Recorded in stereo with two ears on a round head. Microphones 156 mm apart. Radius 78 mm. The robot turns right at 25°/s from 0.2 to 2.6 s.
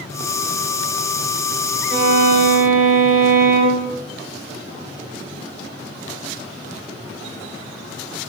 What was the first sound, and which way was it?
A violin, 50° right (ahead or behind).